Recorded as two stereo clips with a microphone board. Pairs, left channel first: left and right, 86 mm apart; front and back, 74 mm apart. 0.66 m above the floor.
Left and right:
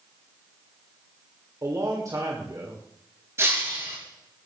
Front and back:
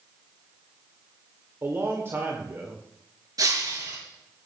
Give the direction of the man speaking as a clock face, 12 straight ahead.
4 o'clock.